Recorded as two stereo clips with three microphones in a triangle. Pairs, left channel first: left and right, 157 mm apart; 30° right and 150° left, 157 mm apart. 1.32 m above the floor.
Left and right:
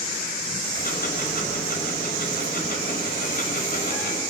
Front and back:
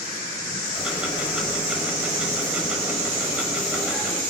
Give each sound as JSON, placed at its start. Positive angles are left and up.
{"t": 0.8, "sound": "ticking", "azimuth_deg": 65, "distance_m": 5.0}